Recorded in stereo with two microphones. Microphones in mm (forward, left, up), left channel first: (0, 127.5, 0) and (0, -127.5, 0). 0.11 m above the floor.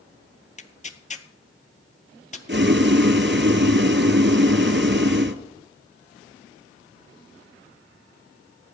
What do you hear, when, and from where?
0.6 s tearing paper: 30° left (ahead or behind), 0.8 m
2.5 s boiling: 45° right (ahead or behind), 0.9 m